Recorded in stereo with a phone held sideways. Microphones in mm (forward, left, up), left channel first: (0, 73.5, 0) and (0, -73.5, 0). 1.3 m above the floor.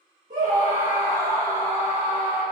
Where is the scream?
70° right (ahead or behind), 1.4 m; by 2.4 s 45° right (ahead or behind), 3 m.